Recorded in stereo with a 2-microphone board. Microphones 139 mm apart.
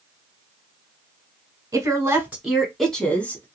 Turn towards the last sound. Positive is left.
turn(degrees=15)  # may be behind; listen again after turning